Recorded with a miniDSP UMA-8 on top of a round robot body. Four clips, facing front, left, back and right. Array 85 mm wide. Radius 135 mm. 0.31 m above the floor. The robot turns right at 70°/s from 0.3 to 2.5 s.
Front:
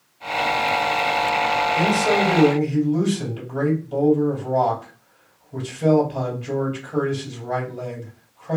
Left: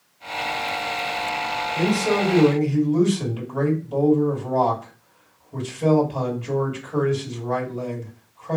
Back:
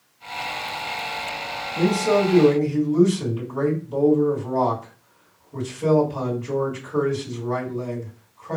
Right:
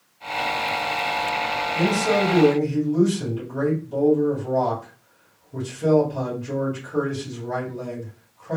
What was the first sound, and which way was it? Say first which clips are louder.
A man speaking: even, back 4 dB; straight ahead.